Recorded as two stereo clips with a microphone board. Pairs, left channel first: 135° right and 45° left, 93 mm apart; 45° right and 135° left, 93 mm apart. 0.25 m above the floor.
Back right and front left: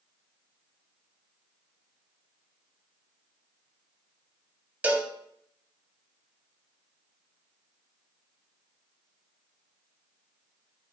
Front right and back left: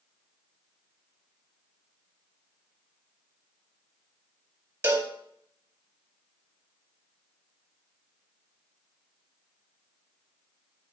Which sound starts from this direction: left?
A cowbell, at 4.8 s.